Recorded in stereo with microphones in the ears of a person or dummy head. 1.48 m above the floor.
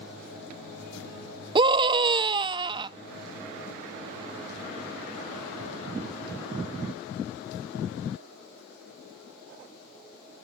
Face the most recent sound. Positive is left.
turn(degrees=-30)  # may be behind; listen again after turning